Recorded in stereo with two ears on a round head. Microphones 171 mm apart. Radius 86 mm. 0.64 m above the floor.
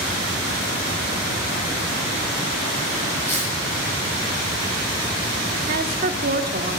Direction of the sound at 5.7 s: 50° right (ahead or behind).